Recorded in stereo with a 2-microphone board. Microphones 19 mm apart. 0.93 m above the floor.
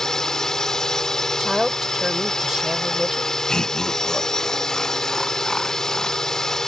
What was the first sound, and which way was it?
A drone, 25° left (ahead or behind).